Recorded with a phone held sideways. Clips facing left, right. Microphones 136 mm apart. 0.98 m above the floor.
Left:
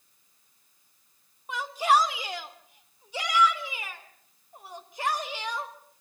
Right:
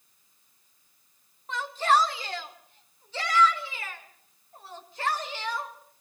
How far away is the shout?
About 2.5 m.